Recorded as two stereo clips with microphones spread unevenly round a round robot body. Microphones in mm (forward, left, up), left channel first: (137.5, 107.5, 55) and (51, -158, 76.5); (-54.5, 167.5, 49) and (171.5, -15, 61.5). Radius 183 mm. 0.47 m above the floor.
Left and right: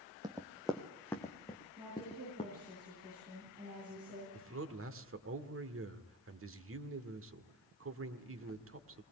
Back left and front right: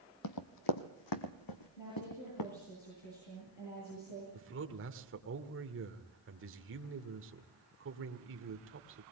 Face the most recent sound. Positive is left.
turn(degrees=-80)